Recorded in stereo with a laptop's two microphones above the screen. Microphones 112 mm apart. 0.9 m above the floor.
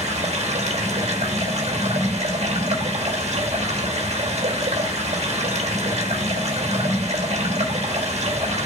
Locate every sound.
0.0 s running water: 70° right (ahead or behind), 1.3 m